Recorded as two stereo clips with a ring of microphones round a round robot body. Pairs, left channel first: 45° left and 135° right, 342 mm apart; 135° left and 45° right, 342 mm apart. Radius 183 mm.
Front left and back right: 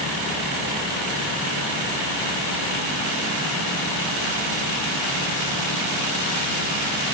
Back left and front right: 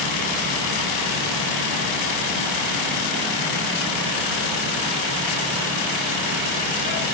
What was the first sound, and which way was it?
Only background noise.